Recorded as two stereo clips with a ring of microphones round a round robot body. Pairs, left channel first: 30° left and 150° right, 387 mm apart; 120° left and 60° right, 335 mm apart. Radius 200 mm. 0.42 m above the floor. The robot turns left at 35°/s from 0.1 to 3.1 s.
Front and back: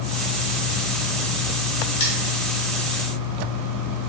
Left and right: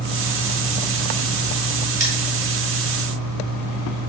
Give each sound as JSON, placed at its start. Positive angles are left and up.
{"t": 2.0, "sound": "cutlery clinking", "azimuth_deg": -5, "distance_m": 2.0}